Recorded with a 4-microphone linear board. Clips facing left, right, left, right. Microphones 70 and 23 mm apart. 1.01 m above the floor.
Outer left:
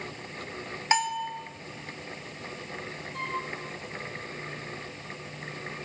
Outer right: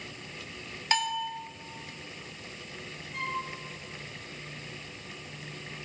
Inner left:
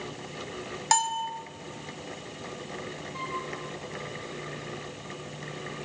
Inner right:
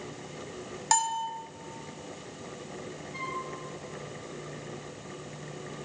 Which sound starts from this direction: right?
A flute, at 3.1 s.